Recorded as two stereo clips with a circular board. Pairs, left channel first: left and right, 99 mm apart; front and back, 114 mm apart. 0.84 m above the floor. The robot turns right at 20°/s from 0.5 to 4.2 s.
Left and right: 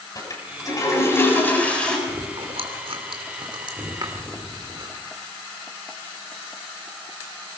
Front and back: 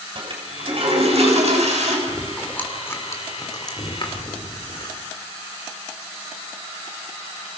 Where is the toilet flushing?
140° left, 7 m; by 2.0 s 170° left, 7 m.